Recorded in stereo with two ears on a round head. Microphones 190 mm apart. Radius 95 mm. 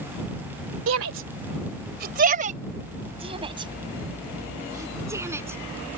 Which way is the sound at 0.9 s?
70° right (ahead or behind).